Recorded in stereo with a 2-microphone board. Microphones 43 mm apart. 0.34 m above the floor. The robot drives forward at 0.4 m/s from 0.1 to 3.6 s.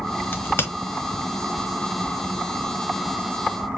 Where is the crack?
55° left (ahead or behind), 1.4 m.